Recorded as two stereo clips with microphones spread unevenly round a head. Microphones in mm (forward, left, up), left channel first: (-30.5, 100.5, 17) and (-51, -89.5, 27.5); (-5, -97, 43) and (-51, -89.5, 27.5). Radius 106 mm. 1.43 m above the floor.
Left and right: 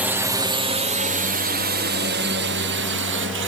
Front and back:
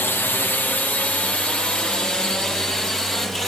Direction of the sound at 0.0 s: 20° right.